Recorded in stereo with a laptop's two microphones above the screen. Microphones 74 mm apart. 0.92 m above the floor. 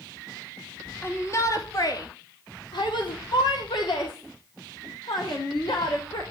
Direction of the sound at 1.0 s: 30° left (ahead or behind).